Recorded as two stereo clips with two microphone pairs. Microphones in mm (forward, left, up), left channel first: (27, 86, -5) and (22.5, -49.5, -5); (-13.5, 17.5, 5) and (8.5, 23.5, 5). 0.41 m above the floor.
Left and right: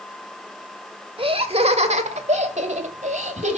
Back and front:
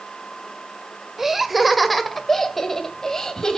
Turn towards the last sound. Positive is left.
turn(degrees=-110)